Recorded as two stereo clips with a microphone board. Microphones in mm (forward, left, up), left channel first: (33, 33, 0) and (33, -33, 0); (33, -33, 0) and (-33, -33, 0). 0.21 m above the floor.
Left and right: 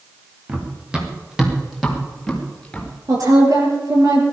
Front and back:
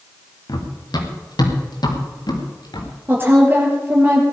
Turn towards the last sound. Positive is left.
turn(degrees=-120)